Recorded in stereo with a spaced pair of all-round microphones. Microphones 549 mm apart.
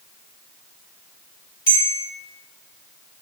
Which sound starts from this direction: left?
A bell, at 1.7 s.